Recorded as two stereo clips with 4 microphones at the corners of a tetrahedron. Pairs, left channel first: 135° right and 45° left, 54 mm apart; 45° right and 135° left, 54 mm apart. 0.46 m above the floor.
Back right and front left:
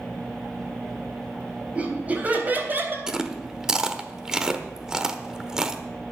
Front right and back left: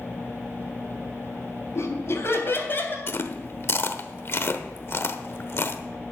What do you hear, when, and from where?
1.8 s laughter: 20° right, 3.5 m; by 3.0 s straight ahead, 3 m
3.1 s chewing: 30° right, 1.0 m